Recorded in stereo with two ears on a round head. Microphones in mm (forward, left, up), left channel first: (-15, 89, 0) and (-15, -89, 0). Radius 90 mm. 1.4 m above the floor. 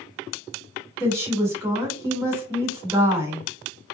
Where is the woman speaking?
15° right (ahead or behind), 2.0 m.